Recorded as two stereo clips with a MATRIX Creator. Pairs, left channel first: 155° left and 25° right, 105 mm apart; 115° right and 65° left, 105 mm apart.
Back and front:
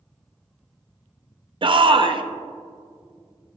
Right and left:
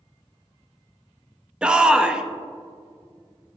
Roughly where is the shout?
Ahead.